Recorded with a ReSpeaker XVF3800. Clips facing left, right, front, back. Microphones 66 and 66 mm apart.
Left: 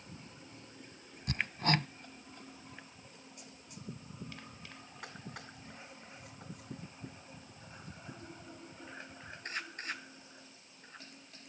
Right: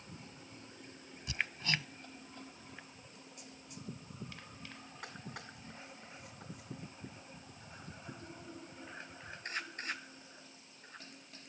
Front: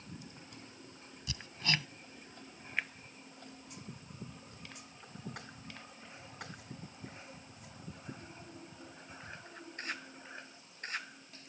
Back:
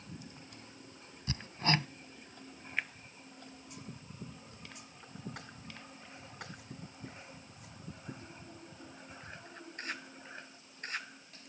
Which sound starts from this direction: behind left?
Hammering, at 1.3 s.